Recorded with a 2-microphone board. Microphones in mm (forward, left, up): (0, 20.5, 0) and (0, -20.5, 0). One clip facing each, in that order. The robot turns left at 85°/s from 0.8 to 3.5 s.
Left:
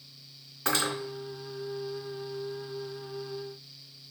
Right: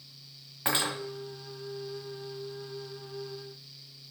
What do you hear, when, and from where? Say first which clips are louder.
0.7 s cutlery clinking: left 1 dB; 25° right (ahead or behind), 1.8 m; by 0.9 s 15° right (ahead or behind), 1.8 m